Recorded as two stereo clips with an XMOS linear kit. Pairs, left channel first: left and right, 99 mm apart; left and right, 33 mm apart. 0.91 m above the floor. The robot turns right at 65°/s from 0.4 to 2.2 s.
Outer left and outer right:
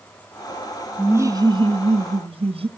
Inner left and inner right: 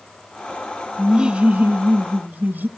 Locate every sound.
1.0 s laughter: 165° right, 1.3 m; by 2.7 s 85° right, 1.3 m